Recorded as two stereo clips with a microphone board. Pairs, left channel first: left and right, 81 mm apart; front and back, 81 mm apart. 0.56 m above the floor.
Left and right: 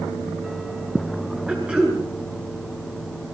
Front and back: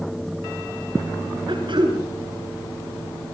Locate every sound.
1.5 s throat clearing: 165° right, 8.5 m